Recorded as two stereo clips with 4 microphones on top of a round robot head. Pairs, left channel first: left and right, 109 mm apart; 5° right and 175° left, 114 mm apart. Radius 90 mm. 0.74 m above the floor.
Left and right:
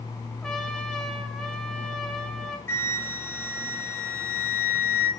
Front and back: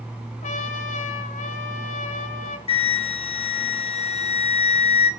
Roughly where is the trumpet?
Ahead.